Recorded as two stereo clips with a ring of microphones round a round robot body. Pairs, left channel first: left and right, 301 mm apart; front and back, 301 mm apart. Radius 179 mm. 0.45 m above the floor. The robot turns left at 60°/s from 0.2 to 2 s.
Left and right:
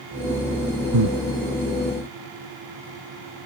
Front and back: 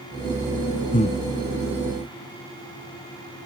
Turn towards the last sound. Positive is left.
turn(degrees=-125)